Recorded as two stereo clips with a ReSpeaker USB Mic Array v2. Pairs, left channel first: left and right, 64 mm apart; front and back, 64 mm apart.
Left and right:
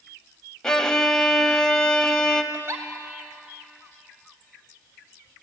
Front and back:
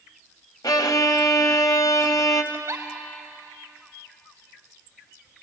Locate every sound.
0.6 s a violin: 10° left, 1.4 m
2.5 s a giggle: 135° right, 2.5 m